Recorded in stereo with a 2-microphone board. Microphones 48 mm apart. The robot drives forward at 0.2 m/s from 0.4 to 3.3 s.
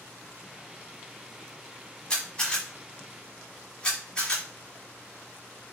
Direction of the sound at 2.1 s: 20° left (ahead or behind).